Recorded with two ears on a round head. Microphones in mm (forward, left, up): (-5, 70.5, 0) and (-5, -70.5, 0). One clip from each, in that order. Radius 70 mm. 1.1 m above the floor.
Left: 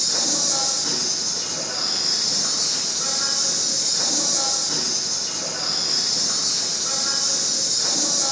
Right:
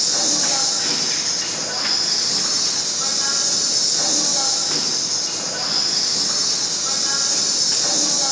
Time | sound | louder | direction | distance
0.0 | an insect | right 2 dB | 20° right (ahead or behind) | 4.5 m